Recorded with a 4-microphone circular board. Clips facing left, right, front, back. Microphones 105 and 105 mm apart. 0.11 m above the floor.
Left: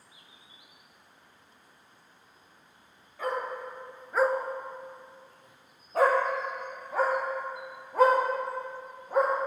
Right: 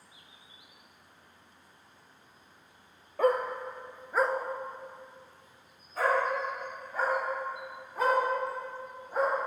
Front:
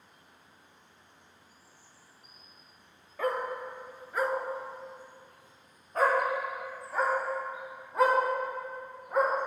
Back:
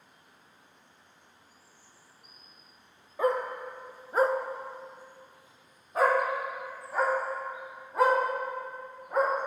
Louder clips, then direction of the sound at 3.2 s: Right 6 dB, back 3 dB; 110° right.